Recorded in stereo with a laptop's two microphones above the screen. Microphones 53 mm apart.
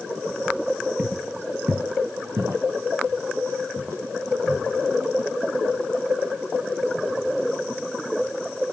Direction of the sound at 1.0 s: 35° right (ahead or behind).